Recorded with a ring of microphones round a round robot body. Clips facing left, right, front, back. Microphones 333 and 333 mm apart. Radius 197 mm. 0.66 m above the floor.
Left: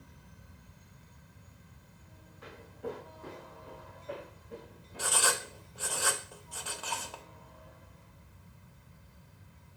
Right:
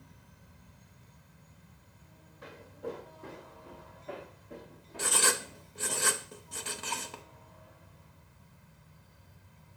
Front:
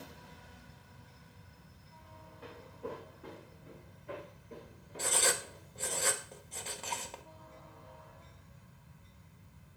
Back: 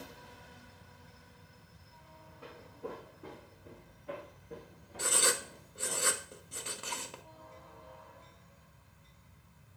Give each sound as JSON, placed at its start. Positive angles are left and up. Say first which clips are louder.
{"t": 2.4, "sound": "footsteps", "louder": "even, even", "azimuth_deg": -105, "distance_m": 2.0}
{"t": 5.0, "sound": "writing", "louder": "right 2 dB, even", "azimuth_deg": -120, "distance_m": 0.6}